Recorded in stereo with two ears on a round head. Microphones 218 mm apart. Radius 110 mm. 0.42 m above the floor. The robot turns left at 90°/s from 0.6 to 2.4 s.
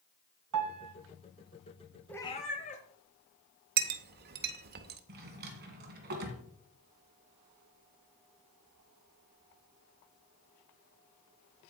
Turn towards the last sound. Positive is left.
turn(degrees=-45)  # may be behind; listen again after turning